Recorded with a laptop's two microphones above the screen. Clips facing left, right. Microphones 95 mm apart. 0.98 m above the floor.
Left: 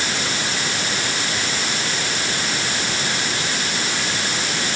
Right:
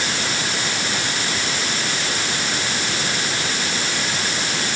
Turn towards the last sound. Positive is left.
No sound to turn to.